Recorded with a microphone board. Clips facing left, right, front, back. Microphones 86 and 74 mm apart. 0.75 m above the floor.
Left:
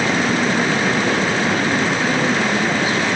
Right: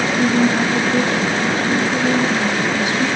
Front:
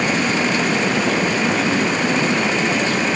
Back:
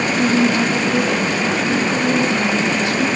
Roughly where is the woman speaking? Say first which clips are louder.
Right 2 dB, back 3 dB; behind.